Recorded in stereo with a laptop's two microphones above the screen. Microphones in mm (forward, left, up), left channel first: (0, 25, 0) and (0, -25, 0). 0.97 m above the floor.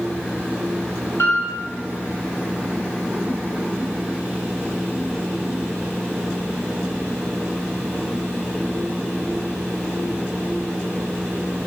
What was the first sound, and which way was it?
A piano, 70° left (ahead or behind).